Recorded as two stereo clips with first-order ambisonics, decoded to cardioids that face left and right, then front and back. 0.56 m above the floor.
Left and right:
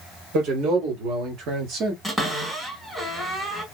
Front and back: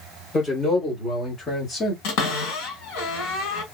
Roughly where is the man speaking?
Right.